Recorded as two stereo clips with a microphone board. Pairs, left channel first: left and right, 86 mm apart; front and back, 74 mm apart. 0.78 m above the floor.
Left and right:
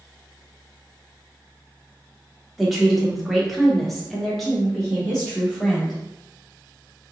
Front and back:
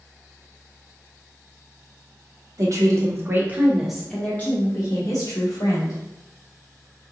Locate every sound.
2.6 s a woman speaking: straight behind, 1.2 m; by 6.0 s 5° left, 1.6 m